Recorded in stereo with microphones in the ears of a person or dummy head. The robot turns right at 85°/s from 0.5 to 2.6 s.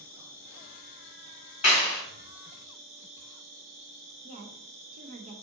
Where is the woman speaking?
45° right (ahead or behind), 0.6 m.